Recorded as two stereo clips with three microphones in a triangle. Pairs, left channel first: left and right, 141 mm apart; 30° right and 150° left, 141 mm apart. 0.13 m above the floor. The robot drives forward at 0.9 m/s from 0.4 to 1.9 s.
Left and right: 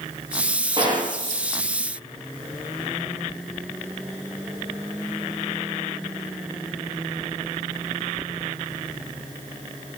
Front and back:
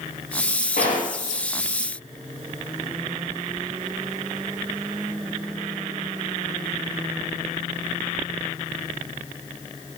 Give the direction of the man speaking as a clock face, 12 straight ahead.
No man speaking in this recording.